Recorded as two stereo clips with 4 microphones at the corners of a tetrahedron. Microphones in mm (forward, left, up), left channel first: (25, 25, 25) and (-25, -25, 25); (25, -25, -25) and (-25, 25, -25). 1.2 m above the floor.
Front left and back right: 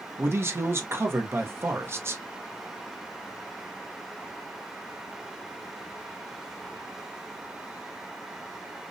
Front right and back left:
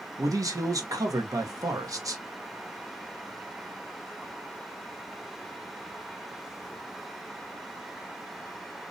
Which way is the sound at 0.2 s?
170° left.